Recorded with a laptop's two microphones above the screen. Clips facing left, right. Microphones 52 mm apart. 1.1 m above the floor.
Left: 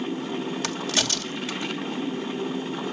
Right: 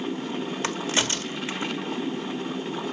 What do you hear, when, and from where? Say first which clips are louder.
0.6 s a crack: right 1 dB; 25° right (ahead or behind), 1.4 m